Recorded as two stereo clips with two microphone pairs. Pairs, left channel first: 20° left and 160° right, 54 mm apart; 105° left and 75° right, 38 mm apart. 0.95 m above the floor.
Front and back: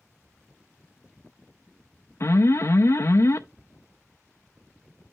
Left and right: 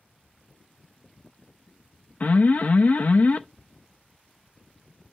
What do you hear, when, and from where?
2.2 s an alarm: 55° left, 0.6 m